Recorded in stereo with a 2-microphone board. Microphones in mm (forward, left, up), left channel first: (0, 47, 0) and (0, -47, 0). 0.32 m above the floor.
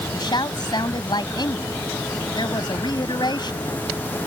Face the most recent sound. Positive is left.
turn(degrees=50)  # may be behind; listen again after turning